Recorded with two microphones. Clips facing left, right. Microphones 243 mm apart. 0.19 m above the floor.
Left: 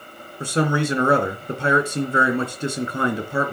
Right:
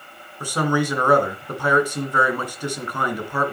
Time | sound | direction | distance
0.4 | a man speaking | 25° left (ahead or behind) | 2.5 m